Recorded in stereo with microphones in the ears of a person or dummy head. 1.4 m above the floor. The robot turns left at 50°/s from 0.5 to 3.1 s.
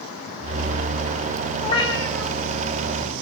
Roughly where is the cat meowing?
Ahead left.